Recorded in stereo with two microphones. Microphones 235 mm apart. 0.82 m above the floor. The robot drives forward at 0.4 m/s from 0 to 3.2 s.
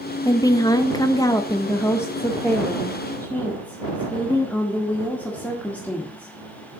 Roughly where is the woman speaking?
Centre.